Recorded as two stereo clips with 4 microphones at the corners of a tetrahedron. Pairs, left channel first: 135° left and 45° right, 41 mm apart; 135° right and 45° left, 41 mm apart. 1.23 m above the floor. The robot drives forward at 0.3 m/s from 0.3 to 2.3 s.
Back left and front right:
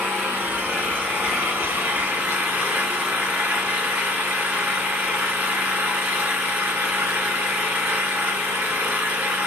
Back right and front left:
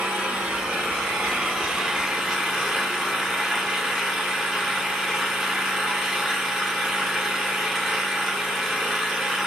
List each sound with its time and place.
0.0 s an engine running: 20° right, 1.5 m; by 9.5 s 40° right, 1.1 m